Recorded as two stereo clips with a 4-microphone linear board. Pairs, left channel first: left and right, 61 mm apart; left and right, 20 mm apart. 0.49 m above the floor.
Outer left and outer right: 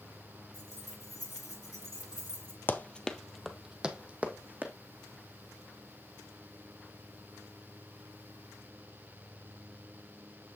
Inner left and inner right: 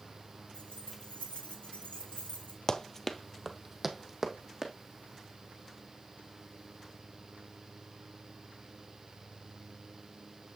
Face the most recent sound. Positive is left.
turn(degrees=-30)  # may be behind; listen again after turning